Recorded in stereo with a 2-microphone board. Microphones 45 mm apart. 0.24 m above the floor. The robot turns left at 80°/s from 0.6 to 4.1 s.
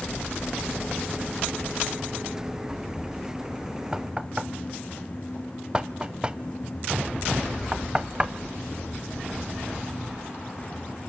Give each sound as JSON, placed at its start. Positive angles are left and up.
{"t": 3.9, "sound": "knocking", "side_deg": -20, "distance_m": 0.6}